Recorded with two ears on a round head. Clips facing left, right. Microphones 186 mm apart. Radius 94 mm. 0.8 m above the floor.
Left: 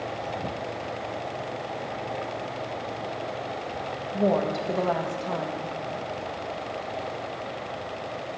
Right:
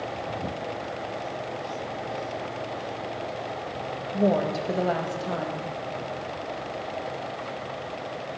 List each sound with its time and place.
4.1 s a woman speaking: 5° right (ahead or behind), 0.7 m